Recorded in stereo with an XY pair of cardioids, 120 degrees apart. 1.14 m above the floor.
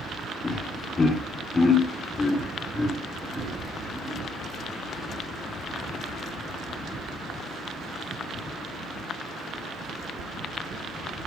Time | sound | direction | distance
0.4 | laughter | 30° left | 2.5 m